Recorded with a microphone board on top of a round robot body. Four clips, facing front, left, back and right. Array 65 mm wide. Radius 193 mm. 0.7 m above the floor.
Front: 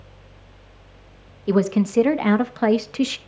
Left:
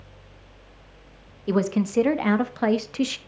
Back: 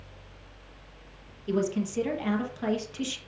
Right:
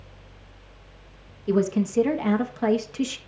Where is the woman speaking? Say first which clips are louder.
Even, front 9 dB; 30° left, 1.3 m.